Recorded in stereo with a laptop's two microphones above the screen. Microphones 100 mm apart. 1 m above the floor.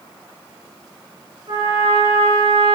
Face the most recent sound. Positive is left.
turn(degrees=-60)  # may be behind; listen again after turning